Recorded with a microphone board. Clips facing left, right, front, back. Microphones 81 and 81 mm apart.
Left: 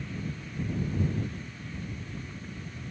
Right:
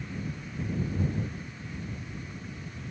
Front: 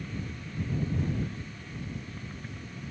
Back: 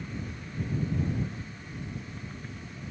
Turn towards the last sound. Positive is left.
No sound to turn to.